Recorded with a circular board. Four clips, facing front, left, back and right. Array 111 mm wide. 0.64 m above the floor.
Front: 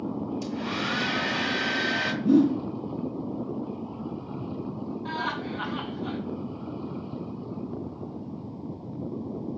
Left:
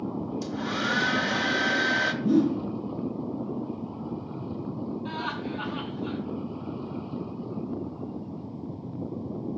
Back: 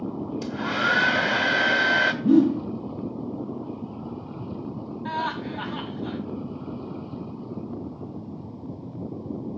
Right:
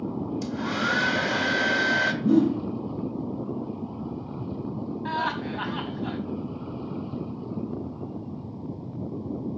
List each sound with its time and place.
0.4 s a hair dryer: 160° right, 1.6 m
2.2 s a whoosh: 155° right, 6.5 m
5.0 s laughter: 110° right, 5.5 m